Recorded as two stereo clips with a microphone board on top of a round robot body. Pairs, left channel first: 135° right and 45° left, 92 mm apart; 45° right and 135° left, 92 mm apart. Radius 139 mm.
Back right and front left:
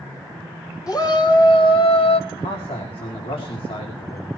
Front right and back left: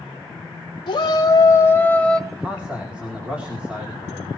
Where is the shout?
85° right, 1.6 m; by 2.2 s 125° right, 1.3 m.